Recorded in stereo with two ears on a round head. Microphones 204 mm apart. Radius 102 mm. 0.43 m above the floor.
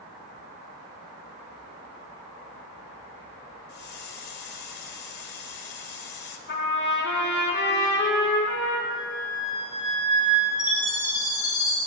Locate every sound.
3.7 s a hiss: 50° left (ahead or behind), 1.7 m
6.5 s a trumpet: 55° left (ahead or behind), 4 m
8.9 s a flute: 80° left, 8 m
10.6 s a chime: 20° left (ahead or behind), 6.5 m